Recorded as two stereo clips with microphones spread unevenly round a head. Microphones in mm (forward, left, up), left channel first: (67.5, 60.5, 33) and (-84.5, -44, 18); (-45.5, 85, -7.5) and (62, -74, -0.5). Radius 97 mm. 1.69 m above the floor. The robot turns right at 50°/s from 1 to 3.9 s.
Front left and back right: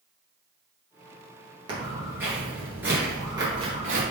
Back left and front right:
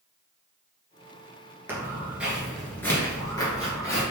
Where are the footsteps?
110° right, 1.7 m; by 4.0 s 170° right, 2.0 m.